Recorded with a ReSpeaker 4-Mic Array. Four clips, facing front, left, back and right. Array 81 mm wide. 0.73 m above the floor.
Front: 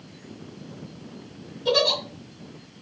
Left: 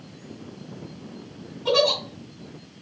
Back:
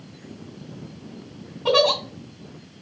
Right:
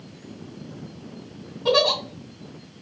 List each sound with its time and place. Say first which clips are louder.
1.6 s a giggle: right 1 dB, back 4 dB; 165° right, 2 m